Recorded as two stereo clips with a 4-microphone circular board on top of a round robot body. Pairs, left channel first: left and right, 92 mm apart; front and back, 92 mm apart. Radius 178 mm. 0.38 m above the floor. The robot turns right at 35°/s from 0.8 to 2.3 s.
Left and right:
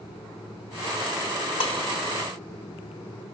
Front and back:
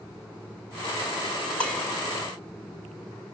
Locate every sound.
1.6 s dishes clattering: 75° left, 3.5 m; by 1.8 s 85° left, 3.5 m